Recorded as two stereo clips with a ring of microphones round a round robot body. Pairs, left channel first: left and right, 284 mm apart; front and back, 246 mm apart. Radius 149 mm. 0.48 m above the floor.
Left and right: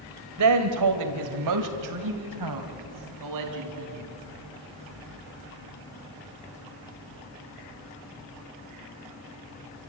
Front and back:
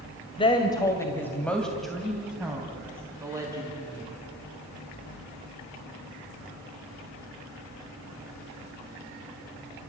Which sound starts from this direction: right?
A woman speaking, at 0.4 s.